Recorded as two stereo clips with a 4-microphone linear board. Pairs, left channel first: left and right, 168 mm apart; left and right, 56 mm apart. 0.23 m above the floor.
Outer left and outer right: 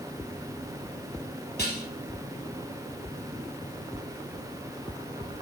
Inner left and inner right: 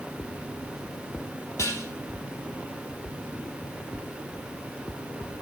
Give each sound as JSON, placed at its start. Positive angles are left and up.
{"t": 1.6, "sound": "dishes clattering", "side_deg": 80, "distance_m": 3.5}